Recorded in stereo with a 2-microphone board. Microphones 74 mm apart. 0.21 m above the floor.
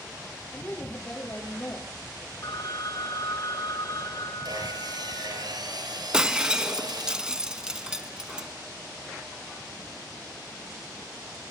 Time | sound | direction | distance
0.5 | a woman speaking | 30° left (ahead or behind) | 6 m
2.4 | a phone ringing | 65° left (ahead or behind) | 2 m
4.5 | sawing | 70° right (ahead or behind) | 4 m
6.1 | breaking glass | 10° right (ahead or behind) | 0.8 m